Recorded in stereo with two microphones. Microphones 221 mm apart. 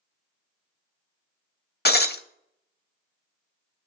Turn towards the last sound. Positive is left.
turn(degrees=45)  # may be behind; listen again after turning